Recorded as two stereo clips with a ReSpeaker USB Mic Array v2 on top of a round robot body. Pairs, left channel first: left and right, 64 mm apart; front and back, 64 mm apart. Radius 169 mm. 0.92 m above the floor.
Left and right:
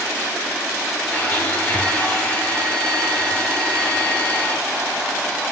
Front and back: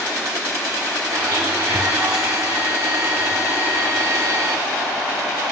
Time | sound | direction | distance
1.1 | a blender | 155° left | 2.5 m